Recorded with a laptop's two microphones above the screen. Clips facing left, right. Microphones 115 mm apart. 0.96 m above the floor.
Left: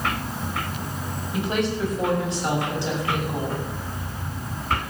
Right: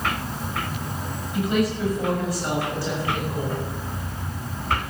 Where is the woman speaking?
30° left (ahead or behind), 6.5 m; by 3.6 s 15° left (ahead or behind), 7 m.